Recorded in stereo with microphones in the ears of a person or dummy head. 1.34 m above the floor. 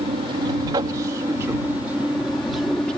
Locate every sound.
0.0 s an aircraft: 25° right (ahead or behind); by 3.0 s 10° left (ahead or behind)